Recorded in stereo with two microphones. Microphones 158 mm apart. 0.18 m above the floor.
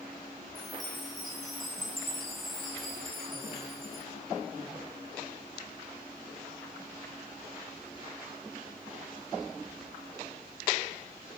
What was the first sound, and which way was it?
A chime, centre (ahead or behind).